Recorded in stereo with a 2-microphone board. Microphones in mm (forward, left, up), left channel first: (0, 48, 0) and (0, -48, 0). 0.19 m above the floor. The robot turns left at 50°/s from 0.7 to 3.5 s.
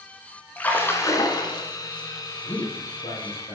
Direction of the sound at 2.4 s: 130° left.